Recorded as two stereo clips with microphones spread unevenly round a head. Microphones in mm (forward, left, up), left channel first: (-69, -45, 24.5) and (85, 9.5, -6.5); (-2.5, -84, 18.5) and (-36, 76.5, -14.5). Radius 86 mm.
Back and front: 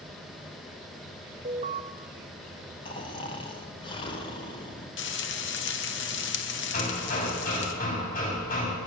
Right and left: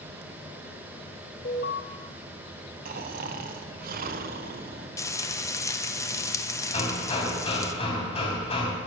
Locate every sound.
1.4 s an alarm: 35° right, 1.8 m
2.9 s snoring: 135° left, 1.6 m
5.0 s frying: 150° right, 1.6 m
6.7 s hammering: 130° right, 4 m